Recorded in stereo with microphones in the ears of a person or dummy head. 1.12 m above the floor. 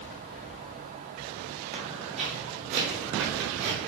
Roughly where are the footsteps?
Right.